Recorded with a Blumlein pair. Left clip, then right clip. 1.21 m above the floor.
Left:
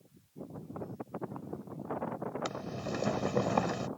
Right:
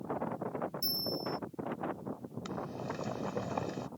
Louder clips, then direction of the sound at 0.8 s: Right 5 dB; 45° right.